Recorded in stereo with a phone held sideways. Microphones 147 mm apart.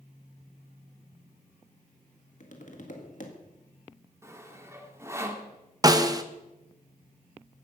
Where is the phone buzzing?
I don't hear a phone buzzing.